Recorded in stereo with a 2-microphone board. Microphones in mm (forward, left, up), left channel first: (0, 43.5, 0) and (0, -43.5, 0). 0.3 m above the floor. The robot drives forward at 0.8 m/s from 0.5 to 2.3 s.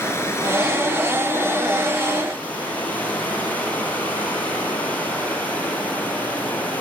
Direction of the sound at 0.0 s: 30° left (ahead or behind).